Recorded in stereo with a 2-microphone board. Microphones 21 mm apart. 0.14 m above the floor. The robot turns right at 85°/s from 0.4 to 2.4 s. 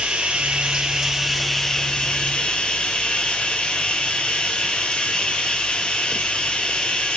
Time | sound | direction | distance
0.0 | running water | 90° right | 1.4 m